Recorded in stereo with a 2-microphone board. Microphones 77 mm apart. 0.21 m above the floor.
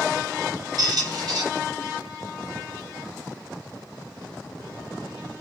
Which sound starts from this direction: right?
A squeak, at 0.8 s.